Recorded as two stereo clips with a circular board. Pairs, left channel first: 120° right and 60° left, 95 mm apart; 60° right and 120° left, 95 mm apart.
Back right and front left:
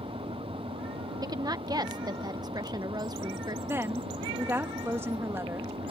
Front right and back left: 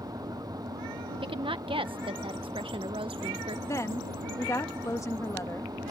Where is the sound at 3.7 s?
5° right.